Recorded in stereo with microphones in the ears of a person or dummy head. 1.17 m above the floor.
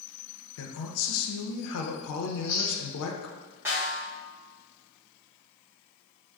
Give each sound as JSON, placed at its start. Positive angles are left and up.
{"t": 0.6, "sound": "a man speaking", "side_deg": 80, "distance_m": 0.5}
{"t": 2.3, "sound": "chewing", "side_deg": 15, "distance_m": 1.1}
{"t": 3.6, "sound": "a snare drum", "side_deg": -15, "distance_m": 1.2}